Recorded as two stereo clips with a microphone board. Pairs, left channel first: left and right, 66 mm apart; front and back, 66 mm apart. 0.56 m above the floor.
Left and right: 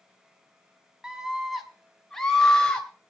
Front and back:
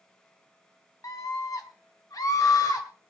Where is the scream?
10° right, 2.5 m; by 2.9 s 15° left, 3.5 m.